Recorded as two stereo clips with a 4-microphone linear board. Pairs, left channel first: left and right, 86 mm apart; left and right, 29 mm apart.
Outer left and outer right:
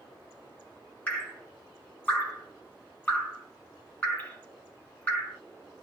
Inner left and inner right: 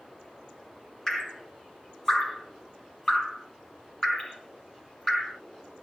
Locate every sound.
1.1 s dripping: 20° left (ahead or behind), 1.2 m